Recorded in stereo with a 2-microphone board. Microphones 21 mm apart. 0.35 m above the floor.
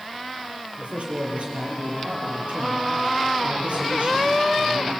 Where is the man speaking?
80° right, 8.5 m.